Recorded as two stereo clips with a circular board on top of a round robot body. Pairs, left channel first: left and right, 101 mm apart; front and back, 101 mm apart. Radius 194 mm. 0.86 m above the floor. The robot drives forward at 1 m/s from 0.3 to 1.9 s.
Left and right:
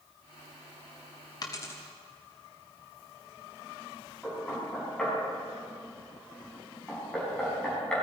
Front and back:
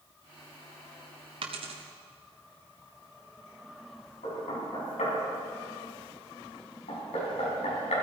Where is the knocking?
10° left, 5.5 m.